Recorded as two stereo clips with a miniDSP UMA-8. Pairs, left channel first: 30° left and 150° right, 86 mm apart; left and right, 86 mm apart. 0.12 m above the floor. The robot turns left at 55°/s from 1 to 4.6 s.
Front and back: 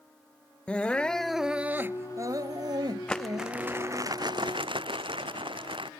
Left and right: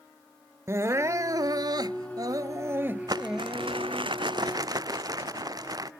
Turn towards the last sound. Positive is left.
turn(degrees=-135)